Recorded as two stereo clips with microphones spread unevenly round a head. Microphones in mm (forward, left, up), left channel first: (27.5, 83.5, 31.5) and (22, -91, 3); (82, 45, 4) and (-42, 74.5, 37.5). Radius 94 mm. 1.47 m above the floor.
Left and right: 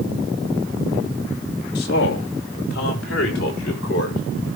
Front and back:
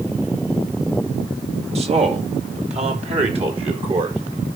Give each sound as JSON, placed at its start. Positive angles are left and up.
{"t": 1.8, "sound": "a man speaking", "azimuth_deg": 130, "distance_m": 2.5}